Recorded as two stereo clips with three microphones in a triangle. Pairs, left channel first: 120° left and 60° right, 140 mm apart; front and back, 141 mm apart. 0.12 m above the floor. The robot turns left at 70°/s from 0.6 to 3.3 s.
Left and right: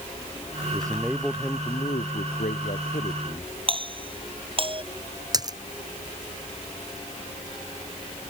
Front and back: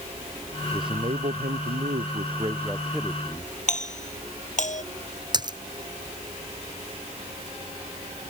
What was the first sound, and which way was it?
A man speaking, 115° right.